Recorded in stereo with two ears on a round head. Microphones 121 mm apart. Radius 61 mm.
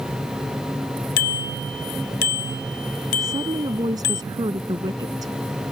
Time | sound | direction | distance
1.2 | a bicycle bell | 80° left | ?
3.2 | a woman speaking | 30° right (ahead or behind) | ?